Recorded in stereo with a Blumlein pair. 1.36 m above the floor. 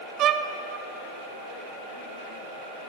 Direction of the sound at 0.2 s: 35° right.